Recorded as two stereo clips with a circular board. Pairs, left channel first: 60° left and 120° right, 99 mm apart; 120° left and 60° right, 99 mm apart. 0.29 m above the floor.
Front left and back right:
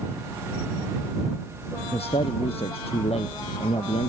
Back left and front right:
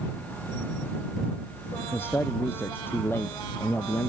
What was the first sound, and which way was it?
A man speaking, 50° left.